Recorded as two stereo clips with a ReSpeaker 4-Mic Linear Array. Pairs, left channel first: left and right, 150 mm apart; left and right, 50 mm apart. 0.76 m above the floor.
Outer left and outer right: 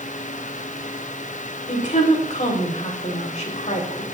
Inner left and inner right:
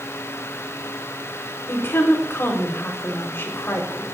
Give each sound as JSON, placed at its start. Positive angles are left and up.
{"t": 1.7, "sound": "a woman speaking", "side_deg": 55, "distance_m": 3.0}